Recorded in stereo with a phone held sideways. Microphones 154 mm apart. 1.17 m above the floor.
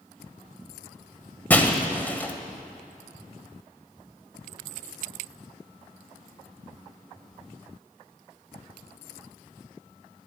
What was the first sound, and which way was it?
Breaking glass, 10° left (ahead or behind).